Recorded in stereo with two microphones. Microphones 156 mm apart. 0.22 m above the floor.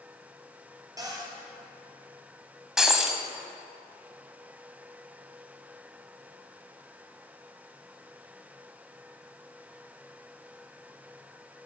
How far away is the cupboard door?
About 2.5 m.